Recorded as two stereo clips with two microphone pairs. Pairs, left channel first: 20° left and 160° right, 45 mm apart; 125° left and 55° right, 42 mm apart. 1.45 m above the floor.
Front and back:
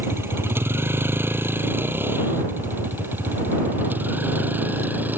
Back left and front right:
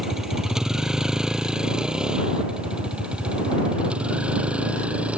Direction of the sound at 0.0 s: 135° right.